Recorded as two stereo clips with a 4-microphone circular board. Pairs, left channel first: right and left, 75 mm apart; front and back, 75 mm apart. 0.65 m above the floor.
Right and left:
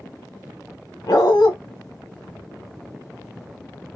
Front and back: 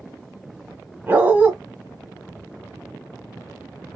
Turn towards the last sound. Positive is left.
turn(degrees=-115)